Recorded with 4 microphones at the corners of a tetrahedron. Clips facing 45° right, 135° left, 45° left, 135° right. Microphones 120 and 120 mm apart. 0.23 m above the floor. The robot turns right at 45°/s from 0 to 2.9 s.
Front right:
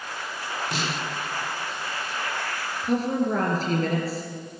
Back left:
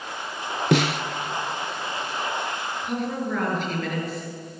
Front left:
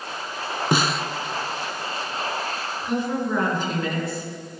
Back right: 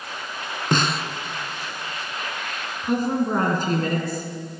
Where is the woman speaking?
95° right, 2.5 m.